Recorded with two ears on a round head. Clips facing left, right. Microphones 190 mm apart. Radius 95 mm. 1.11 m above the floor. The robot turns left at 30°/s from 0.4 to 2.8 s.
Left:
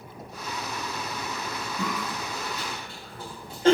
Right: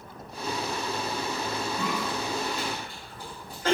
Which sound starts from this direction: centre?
A cough, at 1.8 s.